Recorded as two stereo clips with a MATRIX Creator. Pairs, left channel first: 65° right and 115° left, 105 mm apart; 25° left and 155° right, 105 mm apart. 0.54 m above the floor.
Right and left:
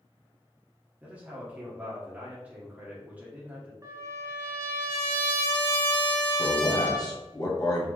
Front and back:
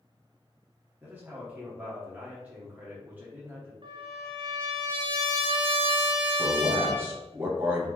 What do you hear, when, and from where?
1.0 s a man speaking: 160° left, 1.1 m
3.8 s a trumpet: 170° left, 0.9 m
6.4 s a man speaking: 95° right, 1.2 m